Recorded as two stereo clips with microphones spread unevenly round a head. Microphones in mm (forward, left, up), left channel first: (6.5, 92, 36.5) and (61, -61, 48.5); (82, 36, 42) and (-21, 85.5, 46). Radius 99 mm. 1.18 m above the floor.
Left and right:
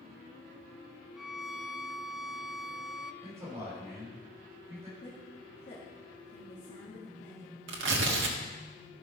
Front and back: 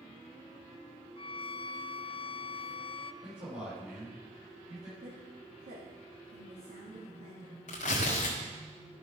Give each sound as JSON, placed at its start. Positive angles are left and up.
{"t": 1.2, "sound": "a violin", "azimuth_deg": 20, "distance_m": 0.5}
{"t": 3.2, "sound": "a man speaking", "azimuth_deg": -145, "distance_m": 6.0}
{"t": 5.0, "sound": "a woman speaking", "azimuth_deg": 165, "distance_m": 1.9}
{"t": 7.7, "sound": "tearing paper", "azimuth_deg": -70, "distance_m": 1.5}